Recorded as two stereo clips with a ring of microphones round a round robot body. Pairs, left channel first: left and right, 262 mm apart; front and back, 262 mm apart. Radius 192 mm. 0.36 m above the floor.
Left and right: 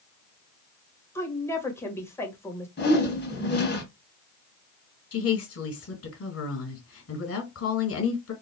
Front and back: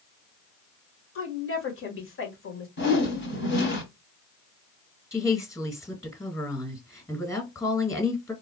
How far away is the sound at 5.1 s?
About 2 m.